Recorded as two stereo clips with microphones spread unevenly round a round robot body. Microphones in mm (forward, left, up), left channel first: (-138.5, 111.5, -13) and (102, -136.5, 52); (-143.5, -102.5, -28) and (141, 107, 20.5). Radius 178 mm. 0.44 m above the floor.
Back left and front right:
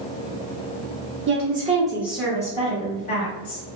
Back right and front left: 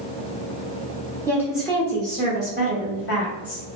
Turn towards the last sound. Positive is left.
turn(degrees=175)